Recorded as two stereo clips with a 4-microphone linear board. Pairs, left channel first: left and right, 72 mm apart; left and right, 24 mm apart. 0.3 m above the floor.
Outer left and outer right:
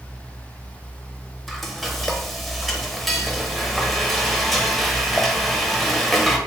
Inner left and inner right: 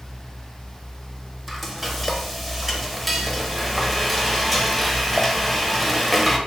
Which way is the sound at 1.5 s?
Centre (ahead or behind).